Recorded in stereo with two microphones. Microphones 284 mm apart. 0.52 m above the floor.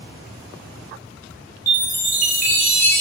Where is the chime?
25° right (ahead or behind), 0.8 m.